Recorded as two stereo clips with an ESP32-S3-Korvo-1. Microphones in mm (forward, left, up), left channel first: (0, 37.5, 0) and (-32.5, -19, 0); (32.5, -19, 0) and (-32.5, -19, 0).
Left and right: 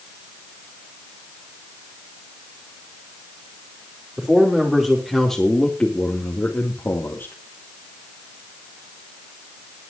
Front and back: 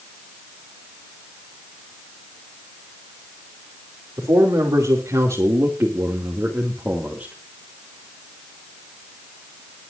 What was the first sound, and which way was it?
A man speaking, 165° left.